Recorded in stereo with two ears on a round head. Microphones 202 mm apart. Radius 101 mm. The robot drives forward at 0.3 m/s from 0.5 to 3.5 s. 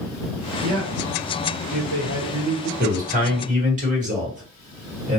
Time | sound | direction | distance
0.6 | a man speaking | 65° right (ahead or behind) | 1.1 m
2.8 | a man speaking | 40° right (ahead or behind) | 1.3 m